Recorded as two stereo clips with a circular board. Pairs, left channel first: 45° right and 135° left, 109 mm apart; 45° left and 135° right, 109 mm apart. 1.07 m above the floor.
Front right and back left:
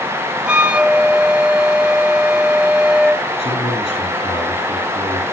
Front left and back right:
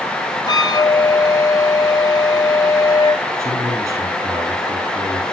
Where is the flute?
60° left, 1.1 m.